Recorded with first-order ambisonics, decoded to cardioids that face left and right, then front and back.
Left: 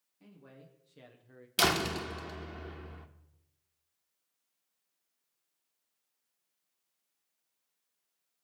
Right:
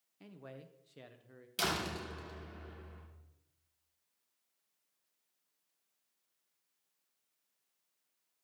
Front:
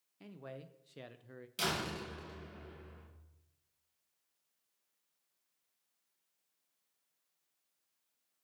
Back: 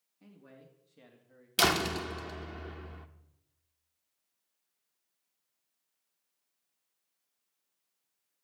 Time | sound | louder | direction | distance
0.2 | a man speaking | right 4 dB, front 7 dB | 35° right | 1.3 m
1.6 | a door slam | left 7 dB, back 9 dB | 145° left | 0.8 m